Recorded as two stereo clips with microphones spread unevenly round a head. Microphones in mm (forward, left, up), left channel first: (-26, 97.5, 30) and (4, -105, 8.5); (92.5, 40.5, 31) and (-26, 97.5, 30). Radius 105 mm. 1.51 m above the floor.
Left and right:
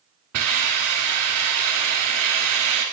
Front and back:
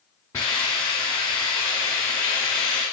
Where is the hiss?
100° right, 2.0 m.